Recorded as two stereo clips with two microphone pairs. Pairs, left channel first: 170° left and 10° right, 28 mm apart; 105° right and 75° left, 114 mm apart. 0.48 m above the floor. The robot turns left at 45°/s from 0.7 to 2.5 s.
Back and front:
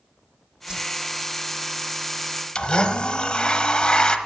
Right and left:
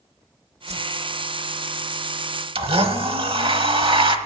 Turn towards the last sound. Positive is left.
turn(degrees=110)